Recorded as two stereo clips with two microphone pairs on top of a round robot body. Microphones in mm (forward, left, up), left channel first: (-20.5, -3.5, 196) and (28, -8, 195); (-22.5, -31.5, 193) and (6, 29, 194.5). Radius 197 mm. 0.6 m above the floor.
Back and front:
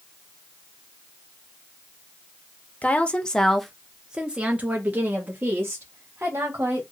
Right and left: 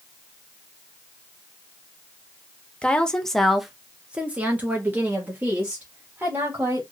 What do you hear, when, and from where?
2.8 s a woman speaking: 165° right, 1.0 m; by 6.8 s 20° left, 1.8 m